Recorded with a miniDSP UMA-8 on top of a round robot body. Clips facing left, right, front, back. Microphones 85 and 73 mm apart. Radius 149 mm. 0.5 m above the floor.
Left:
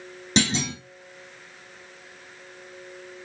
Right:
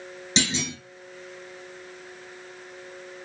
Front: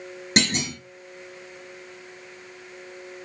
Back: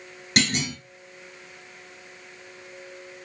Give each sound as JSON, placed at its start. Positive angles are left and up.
{"t": 0.4, "sound": "a clunk", "azimuth_deg": 65, "distance_m": 2.0}